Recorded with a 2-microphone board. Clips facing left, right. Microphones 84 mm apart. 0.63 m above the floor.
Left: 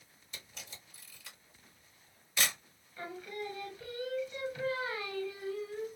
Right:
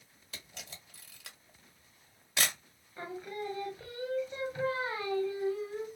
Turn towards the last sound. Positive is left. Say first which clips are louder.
# right 2 dB
turn(degrees=-30)  # may be behind; listen again after turning